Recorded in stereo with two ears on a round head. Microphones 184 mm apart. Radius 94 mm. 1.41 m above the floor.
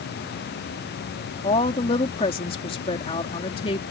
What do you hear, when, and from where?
1.4 s a woman speaking: 25° left (ahead or behind)